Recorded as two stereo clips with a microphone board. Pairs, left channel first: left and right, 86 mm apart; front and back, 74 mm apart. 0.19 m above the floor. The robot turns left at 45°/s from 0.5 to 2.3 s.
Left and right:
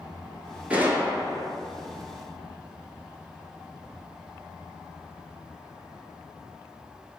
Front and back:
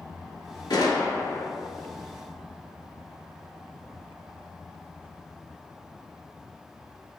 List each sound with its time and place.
0.7 s a gunshot: 15° right, 0.6 m; by 1.5 s 50° right, 0.6 m